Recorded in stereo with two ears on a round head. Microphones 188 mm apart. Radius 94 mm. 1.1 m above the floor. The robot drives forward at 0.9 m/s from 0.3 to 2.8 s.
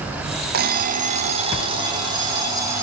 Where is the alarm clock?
50° right (ahead or behind), 0.9 m; by 2.8 s 15° right (ahead or behind), 2.5 m.